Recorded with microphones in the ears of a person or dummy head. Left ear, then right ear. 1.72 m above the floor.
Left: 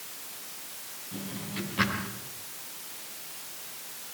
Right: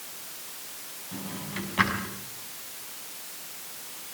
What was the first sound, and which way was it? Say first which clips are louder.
A drawer: right 1 dB; 30° right (ahead or behind).